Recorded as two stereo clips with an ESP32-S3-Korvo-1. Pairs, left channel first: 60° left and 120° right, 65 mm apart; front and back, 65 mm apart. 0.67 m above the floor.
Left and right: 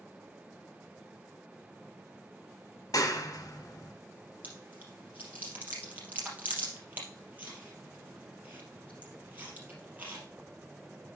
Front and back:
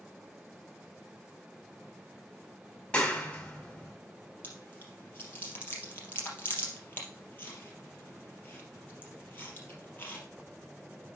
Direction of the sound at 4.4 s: 60° right.